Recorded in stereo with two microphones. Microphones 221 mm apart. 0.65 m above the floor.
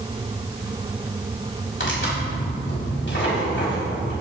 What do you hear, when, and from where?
1.8 s tearing paper: 60° left (ahead or behind), 5 m